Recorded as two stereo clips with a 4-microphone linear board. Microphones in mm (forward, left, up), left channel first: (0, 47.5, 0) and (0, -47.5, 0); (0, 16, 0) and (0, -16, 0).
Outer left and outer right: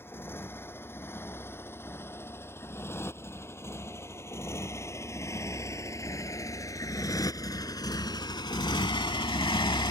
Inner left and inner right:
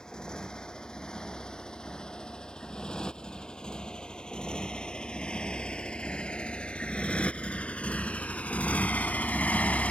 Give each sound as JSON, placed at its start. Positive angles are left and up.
{"t": 0.0, "sound": "a motorcycle", "side_deg": 25}